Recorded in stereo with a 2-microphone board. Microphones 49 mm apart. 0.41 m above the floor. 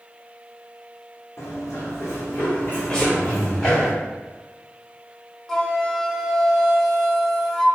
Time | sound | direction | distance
1.4 | running footsteps | 75° left (ahead or behind) | 1.3 m
2.9 | breathing | 15° left (ahead or behind) | 0.9 m
5.5 | a flute | 10° left (ahead or behind) | 0.6 m